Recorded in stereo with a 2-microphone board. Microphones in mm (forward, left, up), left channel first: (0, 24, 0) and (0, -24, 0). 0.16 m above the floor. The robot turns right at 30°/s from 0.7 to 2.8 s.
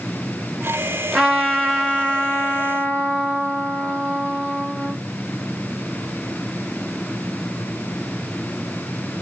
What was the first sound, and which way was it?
A trumpet, 15° right.